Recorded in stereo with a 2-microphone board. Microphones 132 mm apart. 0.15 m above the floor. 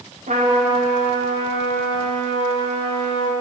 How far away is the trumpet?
About 9.5 m.